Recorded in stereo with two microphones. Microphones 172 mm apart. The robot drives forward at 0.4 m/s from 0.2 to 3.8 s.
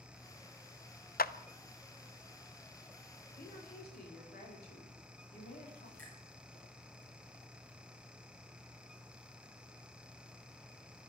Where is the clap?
60° left (ahead or behind), 0.8 m; by 1.3 s 55° left (ahead or behind), 0.8 m.